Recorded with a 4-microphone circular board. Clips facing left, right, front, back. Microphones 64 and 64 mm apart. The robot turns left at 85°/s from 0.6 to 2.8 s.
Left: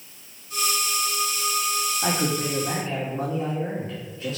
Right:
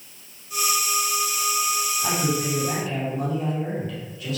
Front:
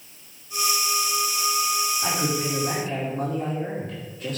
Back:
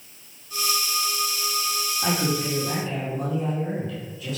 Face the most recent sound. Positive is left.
turn(degrees=35)